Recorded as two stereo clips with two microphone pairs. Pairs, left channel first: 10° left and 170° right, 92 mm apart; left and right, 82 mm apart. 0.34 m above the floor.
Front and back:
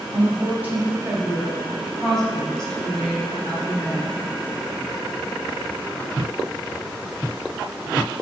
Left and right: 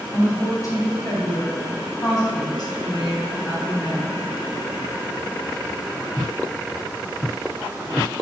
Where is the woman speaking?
130° left, 2.5 m; by 4.3 s 70° left, 2.5 m.